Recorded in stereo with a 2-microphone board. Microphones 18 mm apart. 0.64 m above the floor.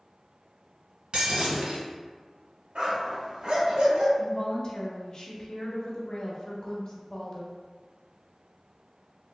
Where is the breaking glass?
75° right (ahead or behind), 1.5 m.